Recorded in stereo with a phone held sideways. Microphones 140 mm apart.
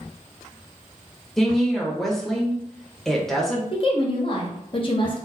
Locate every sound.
1.4 s a woman speaking: centre (ahead or behind), 0.9 m
3.7 s a woman speaking: 40° left (ahead or behind), 0.7 m